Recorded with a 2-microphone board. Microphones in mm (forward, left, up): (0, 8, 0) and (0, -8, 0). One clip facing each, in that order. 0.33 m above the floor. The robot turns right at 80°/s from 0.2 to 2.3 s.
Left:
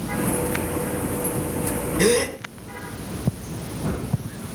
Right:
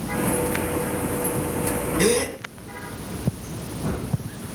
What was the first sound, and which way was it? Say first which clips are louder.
A gasp: left 2 dB; 10° right (ahead or behind).